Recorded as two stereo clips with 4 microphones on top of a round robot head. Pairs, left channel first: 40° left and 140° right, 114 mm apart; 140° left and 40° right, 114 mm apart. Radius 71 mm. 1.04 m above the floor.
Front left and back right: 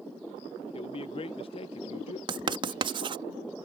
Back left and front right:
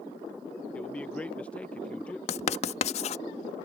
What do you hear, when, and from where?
0.7 s a man speaking: 60° left
2.3 s writing: 170° left